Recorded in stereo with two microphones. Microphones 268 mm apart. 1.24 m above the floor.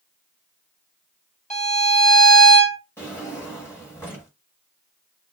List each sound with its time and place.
1.5 s a violin: 25° left (ahead or behind), 1.3 m
3.0 s a drawer: 10° left (ahead or behind), 1.1 m